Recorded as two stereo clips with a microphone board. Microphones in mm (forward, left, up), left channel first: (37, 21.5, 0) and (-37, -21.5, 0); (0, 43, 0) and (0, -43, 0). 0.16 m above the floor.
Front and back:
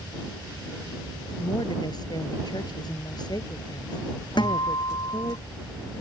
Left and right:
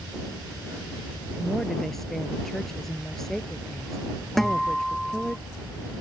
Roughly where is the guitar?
Ahead.